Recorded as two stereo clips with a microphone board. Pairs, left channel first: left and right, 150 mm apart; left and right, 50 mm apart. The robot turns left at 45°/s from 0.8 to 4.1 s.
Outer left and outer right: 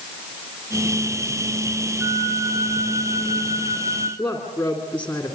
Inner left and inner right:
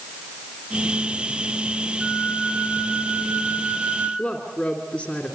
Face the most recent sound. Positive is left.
turn(degrees=10)  # may be behind; listen again after turning